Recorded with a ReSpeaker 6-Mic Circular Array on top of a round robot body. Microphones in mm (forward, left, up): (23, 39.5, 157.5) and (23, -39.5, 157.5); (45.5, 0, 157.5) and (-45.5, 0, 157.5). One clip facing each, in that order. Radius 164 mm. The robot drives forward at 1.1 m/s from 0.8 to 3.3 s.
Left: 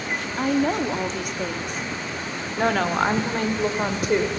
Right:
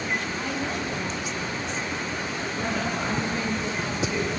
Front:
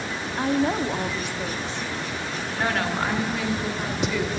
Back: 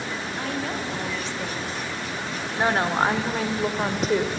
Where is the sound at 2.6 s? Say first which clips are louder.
Left 9 dB, back 4 dB; 110° left, 2.0 m; by 4.3 s 130° left, 2.5 m.